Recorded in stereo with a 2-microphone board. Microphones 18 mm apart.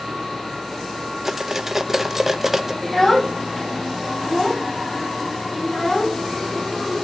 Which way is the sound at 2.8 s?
Centre (ahead or behind).